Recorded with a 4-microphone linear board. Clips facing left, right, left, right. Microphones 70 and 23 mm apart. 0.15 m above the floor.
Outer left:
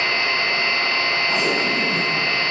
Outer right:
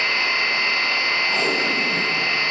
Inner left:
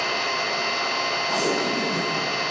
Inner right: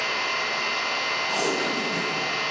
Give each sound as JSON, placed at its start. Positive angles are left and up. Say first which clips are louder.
{"t": 0.0, "sound": "an engine running", "louder": "outer left 1 dB, inner left 1 dB", "side_deg": 35, "distance_m": 2.5}
{"t": 1.3, "sound": "tape being pulled", "louder": "outer left 1 dB, inner left 2 dB", "side_deg": 10, "distance_m": 1.4}